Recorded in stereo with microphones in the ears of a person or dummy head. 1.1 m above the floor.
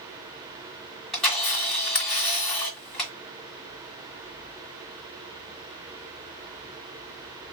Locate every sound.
1.1 s a camera shutter: 5° left (ahead or behind), 1.6 m